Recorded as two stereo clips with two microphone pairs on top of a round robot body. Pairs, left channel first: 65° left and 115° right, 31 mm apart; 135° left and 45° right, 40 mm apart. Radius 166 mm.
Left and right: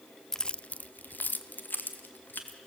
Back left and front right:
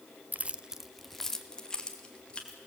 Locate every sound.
0.3 s keys jangling: 5° right, 0.5 m; by 2.6 s 70° left, 1.9 m